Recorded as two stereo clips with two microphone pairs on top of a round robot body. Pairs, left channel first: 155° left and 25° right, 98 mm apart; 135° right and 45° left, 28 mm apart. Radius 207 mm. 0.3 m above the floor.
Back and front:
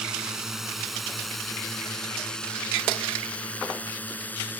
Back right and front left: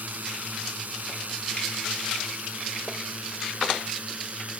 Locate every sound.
0.0 s a drone: 55° left; by 4.6 s 80° left